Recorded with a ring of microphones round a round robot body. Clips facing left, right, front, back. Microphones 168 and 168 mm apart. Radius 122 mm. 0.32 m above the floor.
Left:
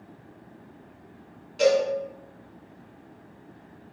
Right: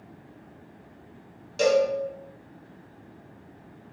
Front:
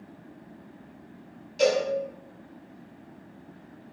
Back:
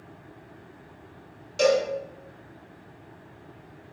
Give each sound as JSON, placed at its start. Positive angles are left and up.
{"t": 1.6, "sound": "a cowbell", "azimuth_deg": -140, "distance_m": 1.3}